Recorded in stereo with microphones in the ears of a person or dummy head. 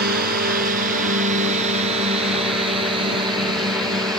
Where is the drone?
50° right (ahead or behind); by 4.2 s 20° right (ahead or behind).